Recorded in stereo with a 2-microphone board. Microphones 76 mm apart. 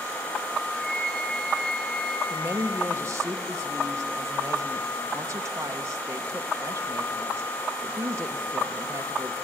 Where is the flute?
10° left (ahead or behind), 2.5 m.